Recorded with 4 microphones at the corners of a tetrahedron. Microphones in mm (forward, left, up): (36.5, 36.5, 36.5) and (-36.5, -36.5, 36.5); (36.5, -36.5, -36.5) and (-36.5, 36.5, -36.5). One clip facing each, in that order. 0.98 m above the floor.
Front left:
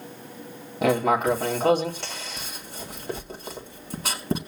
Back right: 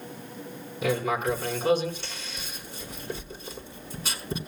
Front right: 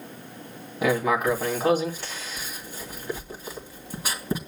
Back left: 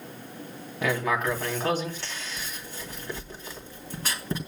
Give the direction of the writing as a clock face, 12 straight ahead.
11 o'clock.